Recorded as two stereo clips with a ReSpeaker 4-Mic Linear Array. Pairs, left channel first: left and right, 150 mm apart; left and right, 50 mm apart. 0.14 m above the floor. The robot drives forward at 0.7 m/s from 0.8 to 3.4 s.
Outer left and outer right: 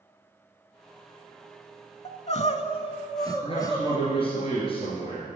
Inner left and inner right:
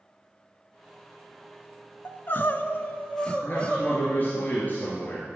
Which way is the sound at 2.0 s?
40° left (ahead or behind).